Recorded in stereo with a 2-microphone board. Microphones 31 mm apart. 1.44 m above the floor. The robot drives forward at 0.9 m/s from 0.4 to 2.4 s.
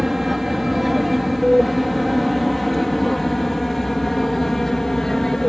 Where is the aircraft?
5° right (ahead or behind); by 5.5 s 15° left (ahead or behind).